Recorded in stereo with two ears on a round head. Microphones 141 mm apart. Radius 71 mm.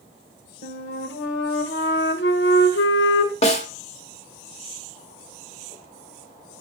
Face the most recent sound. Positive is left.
turn(degrees=45)  # may be behind; listen again after turning